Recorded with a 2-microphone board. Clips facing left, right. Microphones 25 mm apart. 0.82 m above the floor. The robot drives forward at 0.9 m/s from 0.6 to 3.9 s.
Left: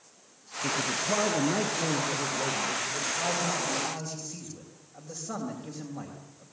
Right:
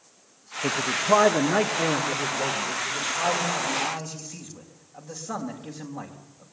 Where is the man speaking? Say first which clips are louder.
Right 5 dB; 70° right (ahead or behind), 1.1 m; by 6.5 s 20° right (ahead or behind), 3.5 m.